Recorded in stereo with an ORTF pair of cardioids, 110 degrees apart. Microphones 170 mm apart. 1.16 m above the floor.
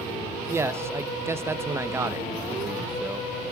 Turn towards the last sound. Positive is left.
turn(degrees=-15)